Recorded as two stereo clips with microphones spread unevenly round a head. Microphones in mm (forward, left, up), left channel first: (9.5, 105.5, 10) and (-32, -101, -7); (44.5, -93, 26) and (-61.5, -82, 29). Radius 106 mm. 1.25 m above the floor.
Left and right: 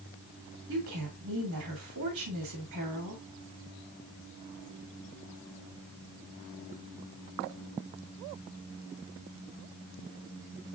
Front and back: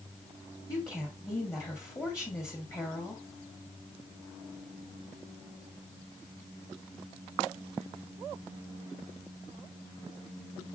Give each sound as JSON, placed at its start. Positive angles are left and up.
{"t": 0.7, "sound": "a woman speaking", "azimuth_deg": -70, "distance_m": 2.5}